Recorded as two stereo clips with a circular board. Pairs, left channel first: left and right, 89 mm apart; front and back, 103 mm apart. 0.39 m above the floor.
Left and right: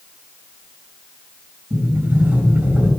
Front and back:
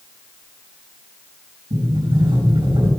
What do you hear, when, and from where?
1.7 s a sliding door: 155° right, 4.5 m